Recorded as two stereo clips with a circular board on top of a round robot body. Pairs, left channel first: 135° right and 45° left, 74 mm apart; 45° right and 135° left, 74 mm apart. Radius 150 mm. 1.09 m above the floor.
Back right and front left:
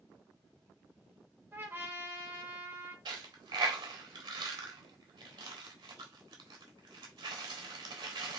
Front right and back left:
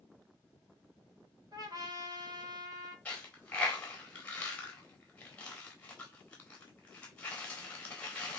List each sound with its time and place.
1.5 s a trumpet: 105° left, 1.8 m
3.0 s a dropped coin: 25° left, 0.8 m